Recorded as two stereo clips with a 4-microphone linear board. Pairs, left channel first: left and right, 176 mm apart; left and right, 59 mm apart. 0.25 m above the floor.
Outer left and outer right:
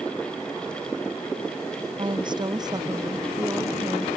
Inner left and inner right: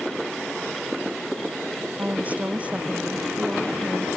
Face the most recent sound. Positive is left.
turn(degrees=-15)  # may be behind; listen again after turning